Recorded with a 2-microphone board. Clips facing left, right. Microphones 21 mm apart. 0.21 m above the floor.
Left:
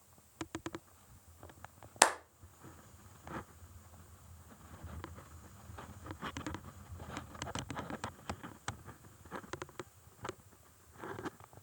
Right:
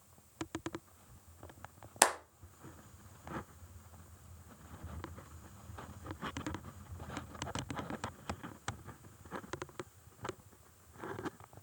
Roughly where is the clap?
Centre.